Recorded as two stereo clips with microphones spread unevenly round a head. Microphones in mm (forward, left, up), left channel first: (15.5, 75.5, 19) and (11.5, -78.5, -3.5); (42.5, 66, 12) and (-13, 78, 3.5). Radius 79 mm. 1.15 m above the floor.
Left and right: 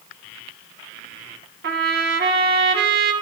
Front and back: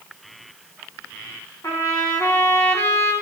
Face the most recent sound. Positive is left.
turn(degrees=-70)